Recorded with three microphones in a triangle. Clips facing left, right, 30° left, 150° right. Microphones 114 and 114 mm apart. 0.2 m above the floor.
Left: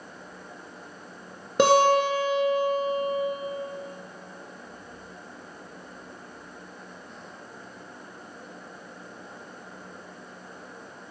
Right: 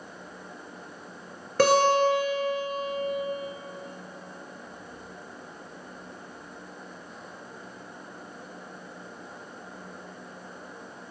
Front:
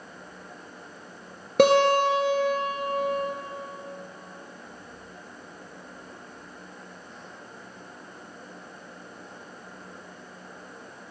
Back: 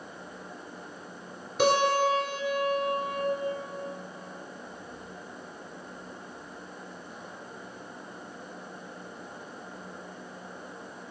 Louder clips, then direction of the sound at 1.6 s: Left 1 dB, front 5 dB; 20° left.